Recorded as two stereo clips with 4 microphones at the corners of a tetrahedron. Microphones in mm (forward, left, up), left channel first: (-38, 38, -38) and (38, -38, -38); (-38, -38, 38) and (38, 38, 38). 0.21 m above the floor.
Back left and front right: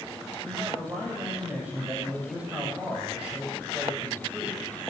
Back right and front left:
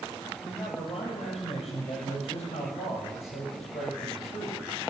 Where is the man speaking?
120° right, 7 m.